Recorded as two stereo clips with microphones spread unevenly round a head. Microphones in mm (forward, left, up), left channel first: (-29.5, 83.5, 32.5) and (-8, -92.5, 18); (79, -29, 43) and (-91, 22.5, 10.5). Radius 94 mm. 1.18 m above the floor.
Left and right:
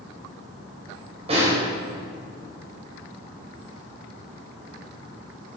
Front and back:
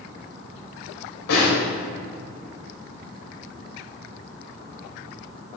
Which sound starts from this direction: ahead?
A snare drum, at 1.3 s.